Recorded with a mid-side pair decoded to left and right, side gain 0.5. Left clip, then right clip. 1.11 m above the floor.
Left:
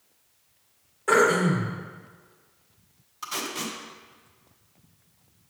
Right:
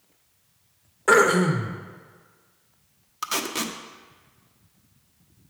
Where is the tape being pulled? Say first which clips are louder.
Right 4 dB; 60° right, 0.8 m.